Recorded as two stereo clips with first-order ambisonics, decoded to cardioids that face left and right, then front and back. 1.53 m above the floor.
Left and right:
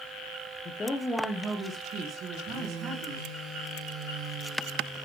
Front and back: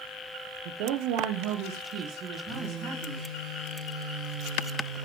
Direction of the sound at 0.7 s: 155° left.